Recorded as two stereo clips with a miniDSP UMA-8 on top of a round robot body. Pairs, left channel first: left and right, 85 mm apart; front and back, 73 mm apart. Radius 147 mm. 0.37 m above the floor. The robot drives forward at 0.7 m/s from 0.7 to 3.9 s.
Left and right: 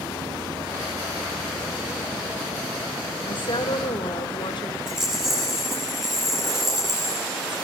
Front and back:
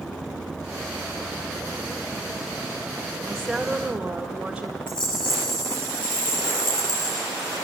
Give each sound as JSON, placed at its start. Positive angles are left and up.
{"t": 3.3, "sound": "a woman speaking", "azimuth_deg": 85, "distance_m": 1.9}
{"t": 4.9, "sound": "a rattle", "azimuth_deg": -5, "distance_m": 9.5}